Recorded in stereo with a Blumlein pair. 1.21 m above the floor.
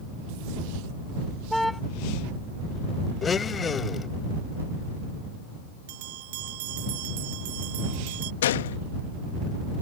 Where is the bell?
50° right.